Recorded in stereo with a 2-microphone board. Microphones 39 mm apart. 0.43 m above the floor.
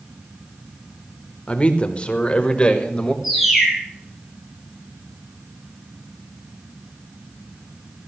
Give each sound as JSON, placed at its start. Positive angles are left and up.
{"t": 1.5, "sound": "a man speaking", "side_deg": 30, "distance_m": 1.2}
{"t": 3.2, "sound": "a bird", "side_deg": -5, "distance_m": 3.5}